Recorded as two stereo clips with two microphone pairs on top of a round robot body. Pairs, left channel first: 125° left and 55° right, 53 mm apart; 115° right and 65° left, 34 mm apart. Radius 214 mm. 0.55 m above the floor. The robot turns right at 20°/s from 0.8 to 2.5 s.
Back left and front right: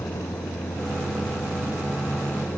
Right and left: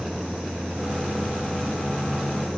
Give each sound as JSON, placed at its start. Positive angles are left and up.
{"t": 0.0, "sound": "a vehicle", "azimuth_deg": 135}